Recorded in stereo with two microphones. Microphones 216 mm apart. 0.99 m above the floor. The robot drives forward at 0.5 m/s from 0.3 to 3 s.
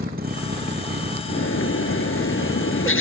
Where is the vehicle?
45° right (ahead or behind).